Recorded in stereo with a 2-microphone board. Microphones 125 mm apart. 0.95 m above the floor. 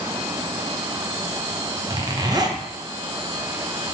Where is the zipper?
30° right (ahead or behind), 0.8 m.